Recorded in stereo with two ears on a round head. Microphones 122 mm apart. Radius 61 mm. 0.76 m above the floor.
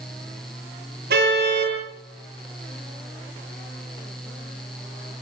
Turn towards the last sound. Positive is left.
turn(degrees=-80)